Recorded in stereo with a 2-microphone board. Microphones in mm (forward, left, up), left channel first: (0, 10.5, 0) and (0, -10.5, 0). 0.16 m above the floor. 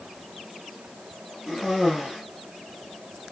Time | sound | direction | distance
1.5 | a cough | 20° right (ahead or behind) | 3.5 m